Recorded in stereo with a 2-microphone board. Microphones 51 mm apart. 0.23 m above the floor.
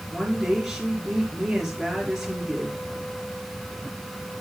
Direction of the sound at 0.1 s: 5° right (ahead or behind).